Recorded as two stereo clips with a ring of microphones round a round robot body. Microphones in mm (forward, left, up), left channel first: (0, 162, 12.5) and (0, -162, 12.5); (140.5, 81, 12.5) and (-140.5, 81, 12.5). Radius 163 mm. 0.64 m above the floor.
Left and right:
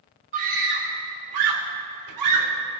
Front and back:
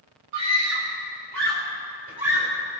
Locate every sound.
0.3 s a scream: 155° right, 2.5 m; by 2.5 s 110° right, 3 m